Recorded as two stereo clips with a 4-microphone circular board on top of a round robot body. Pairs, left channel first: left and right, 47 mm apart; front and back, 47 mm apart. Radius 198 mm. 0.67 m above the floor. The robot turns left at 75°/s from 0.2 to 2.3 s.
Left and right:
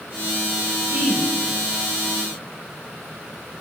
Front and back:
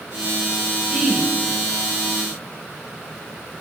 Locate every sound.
0.9 s a woman speaking: 100° right, 4 m; by 1.3 s 130° right, 4 m